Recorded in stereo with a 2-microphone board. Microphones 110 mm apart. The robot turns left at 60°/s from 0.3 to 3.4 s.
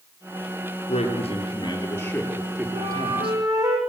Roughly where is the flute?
Right.